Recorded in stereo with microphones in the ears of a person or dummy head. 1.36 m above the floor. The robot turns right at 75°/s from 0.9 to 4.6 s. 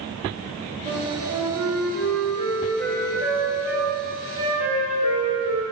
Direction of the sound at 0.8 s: 140° right.